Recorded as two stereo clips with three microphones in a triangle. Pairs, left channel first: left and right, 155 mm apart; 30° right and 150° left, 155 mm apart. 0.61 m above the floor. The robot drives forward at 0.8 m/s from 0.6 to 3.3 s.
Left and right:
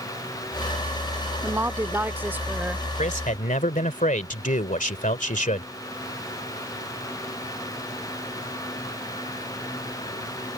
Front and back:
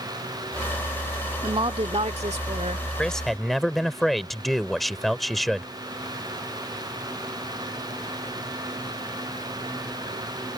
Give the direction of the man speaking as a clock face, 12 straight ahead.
10 o'clock.